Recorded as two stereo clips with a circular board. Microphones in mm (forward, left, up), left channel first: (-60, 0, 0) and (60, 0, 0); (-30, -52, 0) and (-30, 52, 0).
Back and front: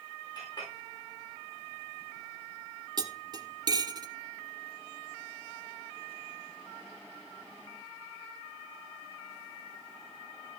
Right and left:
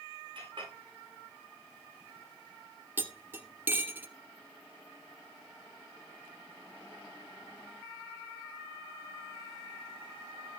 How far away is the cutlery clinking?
About 1.0 m.